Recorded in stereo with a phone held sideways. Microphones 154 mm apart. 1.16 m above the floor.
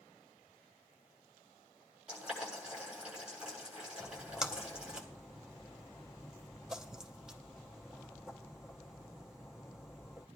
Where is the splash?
5° right (ahead or behind), 0.8 m.